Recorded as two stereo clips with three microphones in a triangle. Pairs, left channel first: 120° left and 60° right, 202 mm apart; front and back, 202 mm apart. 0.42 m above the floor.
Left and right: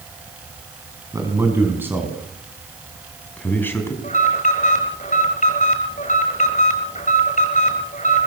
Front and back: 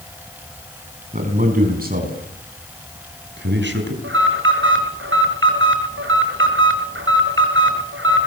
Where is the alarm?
170° left, 7 m.